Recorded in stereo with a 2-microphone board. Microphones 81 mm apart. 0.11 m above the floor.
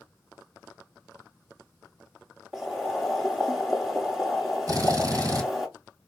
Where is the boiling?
5° right (ahead or behind), 1.2 m.